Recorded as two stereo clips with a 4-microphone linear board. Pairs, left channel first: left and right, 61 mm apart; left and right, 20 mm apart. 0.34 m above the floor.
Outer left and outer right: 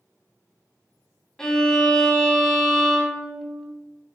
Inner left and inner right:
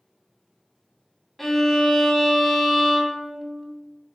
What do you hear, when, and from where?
1.4 s a violin: 10° left (ahead or behind), 0.6 m